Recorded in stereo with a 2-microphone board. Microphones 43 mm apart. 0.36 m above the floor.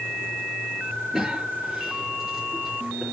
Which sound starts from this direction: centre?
A cough, at 1.1 s.